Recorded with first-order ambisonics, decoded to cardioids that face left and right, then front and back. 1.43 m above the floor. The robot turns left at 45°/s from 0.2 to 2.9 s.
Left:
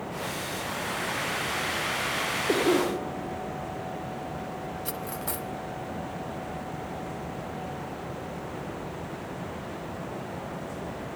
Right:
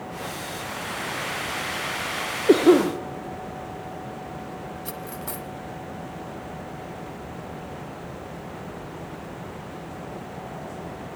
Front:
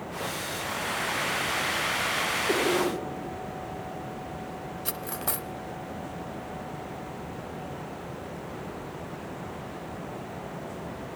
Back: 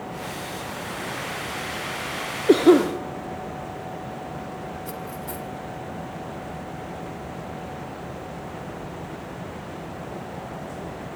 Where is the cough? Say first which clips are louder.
Right 9 dB, back 13 dB; 125° right, 1.2 m; by 2.9 s 145° right, 1.2 m.